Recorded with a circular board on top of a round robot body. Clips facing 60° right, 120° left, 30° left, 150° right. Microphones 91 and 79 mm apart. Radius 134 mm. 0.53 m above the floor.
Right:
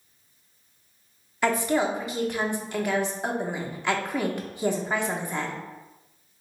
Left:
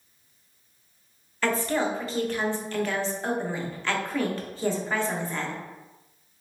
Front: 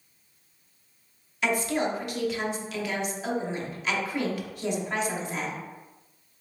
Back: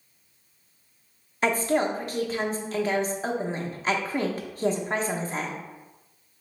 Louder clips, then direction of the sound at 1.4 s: Right 2 dB, back 3 dB; 125° right.